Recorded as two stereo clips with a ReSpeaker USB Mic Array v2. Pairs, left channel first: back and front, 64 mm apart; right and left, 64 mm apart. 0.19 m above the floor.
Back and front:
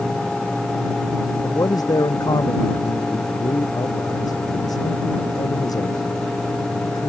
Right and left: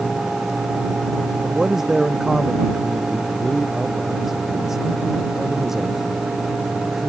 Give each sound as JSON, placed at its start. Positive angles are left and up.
{"t": 1.4, "sound": "a man speaking", "azimuth_deg": 175}